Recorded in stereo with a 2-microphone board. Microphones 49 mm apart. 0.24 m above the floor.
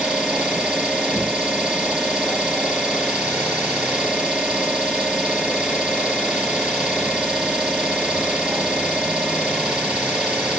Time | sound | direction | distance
0.0 | an engine running | 20° right (ahead or behind) | 5 m